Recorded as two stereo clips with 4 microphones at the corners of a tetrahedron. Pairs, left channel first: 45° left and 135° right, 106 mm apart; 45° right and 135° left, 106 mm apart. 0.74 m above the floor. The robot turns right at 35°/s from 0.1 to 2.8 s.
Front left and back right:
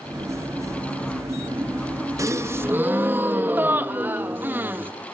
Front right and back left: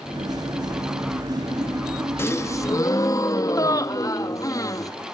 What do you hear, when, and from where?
2.2 s a gasp: 95° right, 1.0 m; by 4.9 s 75° right, 1.0 m